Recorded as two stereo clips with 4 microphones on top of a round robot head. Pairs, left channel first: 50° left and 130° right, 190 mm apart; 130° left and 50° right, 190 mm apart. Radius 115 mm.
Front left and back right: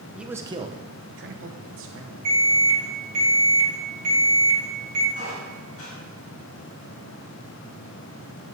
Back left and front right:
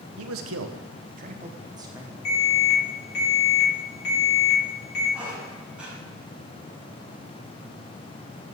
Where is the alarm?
170° left, 4.5 m.